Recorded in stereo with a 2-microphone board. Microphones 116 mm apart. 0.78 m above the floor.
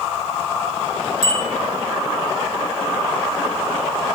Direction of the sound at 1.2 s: 55° right (ahead or behind).